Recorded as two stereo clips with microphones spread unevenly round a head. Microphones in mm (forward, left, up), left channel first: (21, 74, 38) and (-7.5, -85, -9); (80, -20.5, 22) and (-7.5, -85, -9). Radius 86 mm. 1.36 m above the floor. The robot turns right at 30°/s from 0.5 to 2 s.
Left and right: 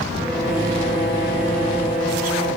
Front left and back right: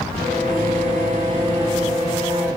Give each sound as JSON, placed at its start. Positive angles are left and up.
{"t": 0.2, "sound": "a violin", "azimuth_deg": -125, "distance_m": 2.5}